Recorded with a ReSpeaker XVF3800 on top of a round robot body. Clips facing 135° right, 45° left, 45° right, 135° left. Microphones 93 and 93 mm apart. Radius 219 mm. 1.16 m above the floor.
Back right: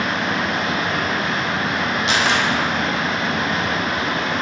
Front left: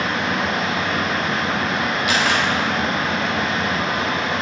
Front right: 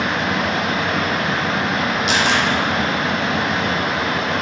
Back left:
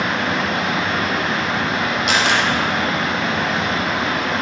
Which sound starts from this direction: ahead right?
Running water, at 0.0 s.